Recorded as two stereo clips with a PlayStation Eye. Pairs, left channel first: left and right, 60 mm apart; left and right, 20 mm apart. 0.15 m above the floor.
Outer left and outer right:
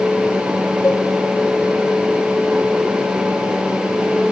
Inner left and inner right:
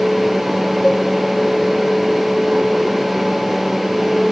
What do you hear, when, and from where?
0.8 s a cowbell: 40° left (ahead or behind), 3 m